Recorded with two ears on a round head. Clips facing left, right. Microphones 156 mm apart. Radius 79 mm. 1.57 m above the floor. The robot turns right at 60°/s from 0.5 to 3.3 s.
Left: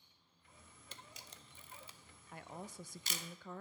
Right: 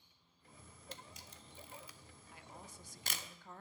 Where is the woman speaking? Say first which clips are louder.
Left 7 dB; 40° left, 0.6 m; by 3.6 s 100° left, 0.6 m.